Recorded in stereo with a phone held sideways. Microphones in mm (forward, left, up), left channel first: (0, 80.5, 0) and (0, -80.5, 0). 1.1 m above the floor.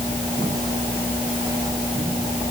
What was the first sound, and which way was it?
Only background noise.